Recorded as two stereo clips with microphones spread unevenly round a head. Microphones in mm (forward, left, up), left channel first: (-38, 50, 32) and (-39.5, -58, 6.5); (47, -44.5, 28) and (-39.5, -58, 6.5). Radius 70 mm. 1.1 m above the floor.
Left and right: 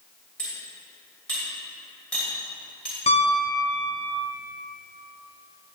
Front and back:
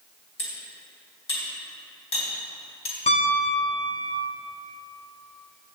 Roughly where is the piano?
Ahead left.